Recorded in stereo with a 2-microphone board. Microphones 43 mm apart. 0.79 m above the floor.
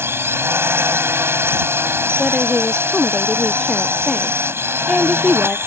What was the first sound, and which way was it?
A drone, 70° right (ahead or behind).